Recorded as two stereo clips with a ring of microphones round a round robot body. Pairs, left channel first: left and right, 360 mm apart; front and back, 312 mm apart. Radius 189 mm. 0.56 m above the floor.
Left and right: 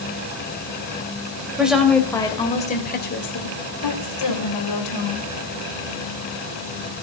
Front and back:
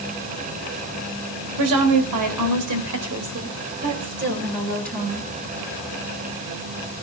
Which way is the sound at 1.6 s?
175° right.